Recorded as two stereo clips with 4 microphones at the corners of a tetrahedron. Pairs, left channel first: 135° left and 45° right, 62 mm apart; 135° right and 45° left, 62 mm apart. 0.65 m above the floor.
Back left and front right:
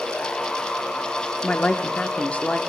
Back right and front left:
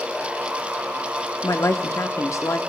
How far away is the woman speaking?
About 1.0 m.